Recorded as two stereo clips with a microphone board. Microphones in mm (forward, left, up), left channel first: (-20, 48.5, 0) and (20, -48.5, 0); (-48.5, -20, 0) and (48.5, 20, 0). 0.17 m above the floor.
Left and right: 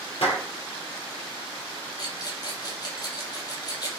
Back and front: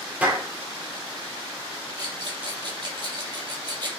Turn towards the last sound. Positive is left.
turn(degrees=65)